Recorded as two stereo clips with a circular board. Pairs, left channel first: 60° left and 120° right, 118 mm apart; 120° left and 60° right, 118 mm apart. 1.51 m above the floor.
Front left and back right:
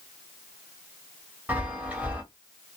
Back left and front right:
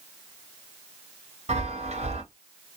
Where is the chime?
45° right, 0.7 m.